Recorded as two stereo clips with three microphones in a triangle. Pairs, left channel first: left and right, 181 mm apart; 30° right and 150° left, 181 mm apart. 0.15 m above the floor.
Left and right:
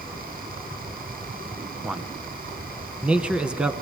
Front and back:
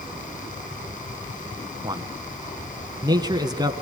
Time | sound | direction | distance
1.8 | a man speaking | 170° right | 1.2 m